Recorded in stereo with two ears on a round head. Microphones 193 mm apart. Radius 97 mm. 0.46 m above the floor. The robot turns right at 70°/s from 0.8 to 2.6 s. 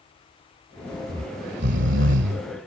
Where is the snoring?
150° right; by 2.7 s 45° right.